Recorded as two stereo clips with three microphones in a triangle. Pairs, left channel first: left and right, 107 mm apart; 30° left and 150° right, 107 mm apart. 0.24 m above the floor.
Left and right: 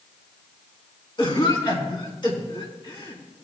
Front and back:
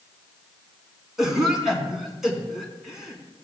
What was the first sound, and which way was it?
A cough, 125° left.